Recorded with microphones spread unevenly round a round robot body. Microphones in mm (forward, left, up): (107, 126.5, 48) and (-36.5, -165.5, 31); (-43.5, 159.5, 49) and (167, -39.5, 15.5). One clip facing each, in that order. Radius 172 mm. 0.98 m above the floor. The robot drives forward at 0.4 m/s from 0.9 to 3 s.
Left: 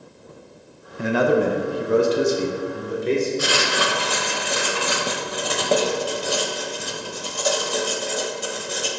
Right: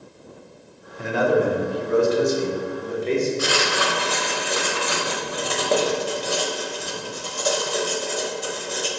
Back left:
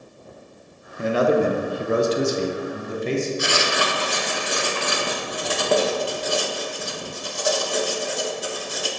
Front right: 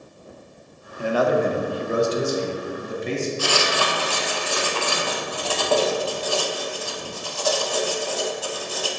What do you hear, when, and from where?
1.0 s a man speaking: 60° left, 0.7 m; by 3.3 s 140° left, 0.8 m
3.4 s writing: 60° left, 0.7 m